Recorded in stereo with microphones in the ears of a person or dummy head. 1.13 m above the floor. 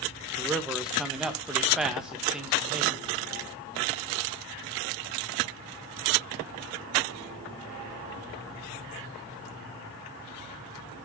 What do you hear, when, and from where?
0.4 s a man speaking: 5° right (ahead or behind), 1.2 m